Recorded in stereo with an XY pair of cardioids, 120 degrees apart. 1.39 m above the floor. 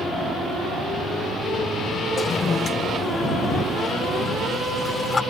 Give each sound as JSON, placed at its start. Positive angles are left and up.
{"t": 2.2, "sound": "a toilet flushing", "azimuth_deg": 30}